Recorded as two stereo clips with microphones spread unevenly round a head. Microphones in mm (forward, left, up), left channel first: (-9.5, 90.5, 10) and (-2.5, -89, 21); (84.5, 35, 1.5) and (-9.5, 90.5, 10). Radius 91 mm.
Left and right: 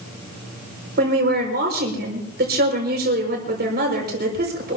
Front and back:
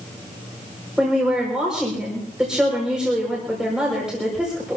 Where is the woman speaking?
125° right, 6 m.